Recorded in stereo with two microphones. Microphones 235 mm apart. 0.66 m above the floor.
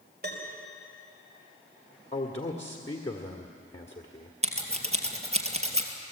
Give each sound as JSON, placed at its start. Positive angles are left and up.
{"t": 0.2, "sound": "a piano", "side_deg": -40, "distance_m": 3.5}
{"t": 2.1, "sound": "a man speaking", "side_deg": 25, "distance_m": 1.6}
{"t": 4.4, "sound": "scissors", "side_deg": -25, "distance_m": 2.5}